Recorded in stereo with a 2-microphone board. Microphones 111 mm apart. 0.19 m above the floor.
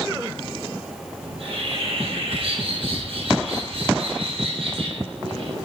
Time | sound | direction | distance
1.2 | a bird | 65° right (ahead or behind) | 6 m